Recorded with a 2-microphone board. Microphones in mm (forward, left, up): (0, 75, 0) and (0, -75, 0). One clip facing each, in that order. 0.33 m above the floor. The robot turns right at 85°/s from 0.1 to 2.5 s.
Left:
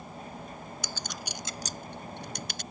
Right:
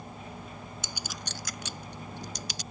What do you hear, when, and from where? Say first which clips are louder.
0.8 s a clink: left 1 dB; 25° right (ahead or behind); by 2.6 s 60° left (ahead or behind)